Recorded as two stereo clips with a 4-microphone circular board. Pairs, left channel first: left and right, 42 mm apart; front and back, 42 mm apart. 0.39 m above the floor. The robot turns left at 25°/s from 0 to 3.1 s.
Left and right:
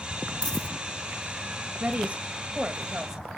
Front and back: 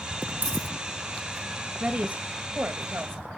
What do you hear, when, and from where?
0.4 s a dropped coin: 155° left, 0.9 m; by 0.7 s 145° left, 0.9 m
1.8 s a woman speaking: 130° right, 1.6 m; by 3.4 s 165° right, 1.6 m